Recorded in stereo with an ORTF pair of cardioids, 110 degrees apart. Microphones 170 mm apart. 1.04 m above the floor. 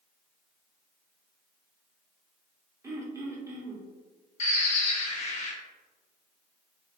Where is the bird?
45° left, 0.6 m.